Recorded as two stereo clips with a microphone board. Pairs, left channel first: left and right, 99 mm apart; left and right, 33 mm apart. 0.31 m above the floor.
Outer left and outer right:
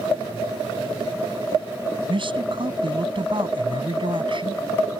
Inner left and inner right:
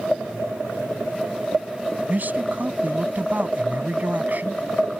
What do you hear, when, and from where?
2.1 s a man speaking: 60° right (ahead or behind)